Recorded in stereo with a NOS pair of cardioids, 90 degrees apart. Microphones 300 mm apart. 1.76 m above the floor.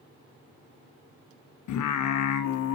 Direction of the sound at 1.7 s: 70° left.